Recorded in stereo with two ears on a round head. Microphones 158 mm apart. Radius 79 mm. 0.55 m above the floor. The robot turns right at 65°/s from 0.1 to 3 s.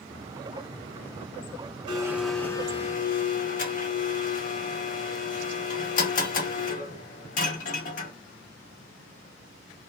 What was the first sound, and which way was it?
A blender, 25° right.